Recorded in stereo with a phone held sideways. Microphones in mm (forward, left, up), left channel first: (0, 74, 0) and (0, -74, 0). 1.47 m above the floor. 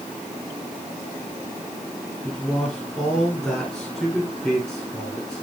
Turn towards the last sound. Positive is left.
turn(degrees=5)  # may be behind; listen again after turning